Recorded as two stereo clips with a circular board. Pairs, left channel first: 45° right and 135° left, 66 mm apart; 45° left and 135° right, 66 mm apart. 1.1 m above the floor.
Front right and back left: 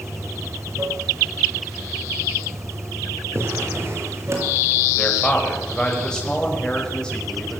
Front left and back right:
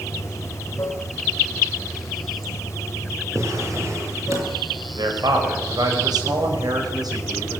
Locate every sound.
0.0 s running water: 90° left, 4 m
3.3 s a drawer: 175° right, 6 m
5.0 s a man speaking: 125° right, 5.5 m